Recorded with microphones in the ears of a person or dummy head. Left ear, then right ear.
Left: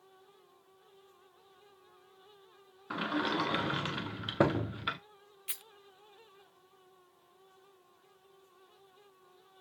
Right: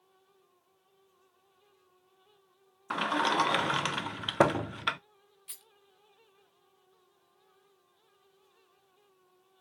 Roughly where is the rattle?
Left.